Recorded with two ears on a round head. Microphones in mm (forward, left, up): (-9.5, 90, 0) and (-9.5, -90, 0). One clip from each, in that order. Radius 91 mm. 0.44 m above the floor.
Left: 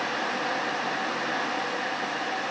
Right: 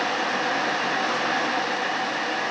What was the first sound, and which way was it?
Only background noise.